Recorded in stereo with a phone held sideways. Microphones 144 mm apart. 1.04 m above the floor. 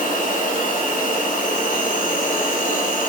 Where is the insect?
65° left (ahead or behind), 0.8 m.